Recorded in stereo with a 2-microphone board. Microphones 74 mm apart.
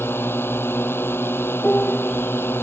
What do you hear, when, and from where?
0.0 s a drone: 30° left (ahead or behind)
1.6 s a piano: 20° left (ahead or behind)